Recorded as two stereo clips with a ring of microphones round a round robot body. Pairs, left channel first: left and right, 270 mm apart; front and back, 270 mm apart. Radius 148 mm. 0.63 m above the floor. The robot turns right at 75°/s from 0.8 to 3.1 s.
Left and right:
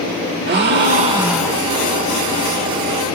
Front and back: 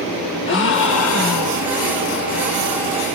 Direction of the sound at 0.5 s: 45° right.